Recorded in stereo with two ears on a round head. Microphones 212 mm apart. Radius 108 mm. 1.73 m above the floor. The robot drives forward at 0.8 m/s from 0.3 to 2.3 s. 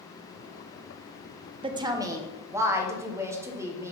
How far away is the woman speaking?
About 0.5 m.